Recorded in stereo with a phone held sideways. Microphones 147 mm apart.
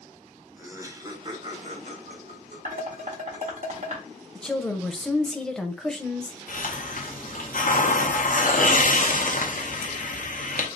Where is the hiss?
65° left (ahead or behind), 0.7 m.